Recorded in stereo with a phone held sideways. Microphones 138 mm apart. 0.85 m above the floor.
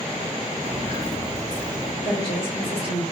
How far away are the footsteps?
About 1.3 m.